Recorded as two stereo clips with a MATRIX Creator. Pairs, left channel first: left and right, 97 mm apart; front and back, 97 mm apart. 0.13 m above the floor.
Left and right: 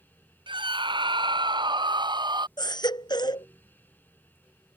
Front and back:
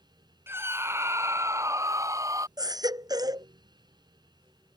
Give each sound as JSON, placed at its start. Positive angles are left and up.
{"t": 0.5, "sound": "a scream", "azimuth_deg": -115}
{"t": 2.6, "sound": "a baby crying", "azimuth_deg": 130}